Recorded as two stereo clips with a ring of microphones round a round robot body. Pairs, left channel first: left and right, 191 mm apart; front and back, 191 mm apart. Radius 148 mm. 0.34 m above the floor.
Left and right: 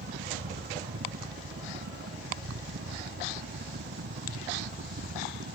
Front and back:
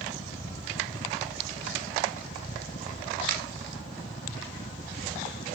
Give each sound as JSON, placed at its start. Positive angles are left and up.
{"t": 0.0, "sound": "a helicopter", "azimuth_deg": -65}